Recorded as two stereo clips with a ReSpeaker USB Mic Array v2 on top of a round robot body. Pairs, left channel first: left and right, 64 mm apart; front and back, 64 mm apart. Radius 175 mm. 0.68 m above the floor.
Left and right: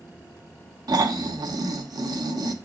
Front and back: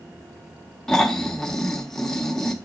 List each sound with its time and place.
0.9 s snoring: 80° right, 1.1 m